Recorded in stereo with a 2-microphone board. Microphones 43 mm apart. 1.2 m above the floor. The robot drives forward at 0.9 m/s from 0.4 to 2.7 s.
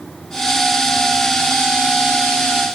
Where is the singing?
I don't hear singing.